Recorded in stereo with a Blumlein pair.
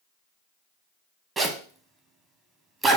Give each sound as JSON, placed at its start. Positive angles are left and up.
{"t": 1.4, "sound": "a zipper", "azimuth_deg": -20, "distance_m": 0.9}